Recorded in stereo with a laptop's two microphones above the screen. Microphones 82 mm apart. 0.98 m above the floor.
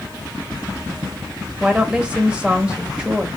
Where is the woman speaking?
10° right (ahead or behind), 1.1 m.